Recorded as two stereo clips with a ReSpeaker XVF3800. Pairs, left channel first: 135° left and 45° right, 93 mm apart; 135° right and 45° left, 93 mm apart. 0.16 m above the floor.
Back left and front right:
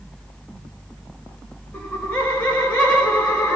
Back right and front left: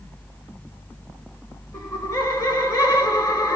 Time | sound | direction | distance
1.7 | laughter | 165° right | 1.1 m